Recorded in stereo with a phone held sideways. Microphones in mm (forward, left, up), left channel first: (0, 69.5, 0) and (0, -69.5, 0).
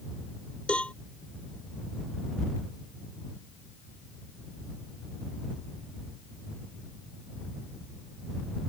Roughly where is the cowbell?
Centre.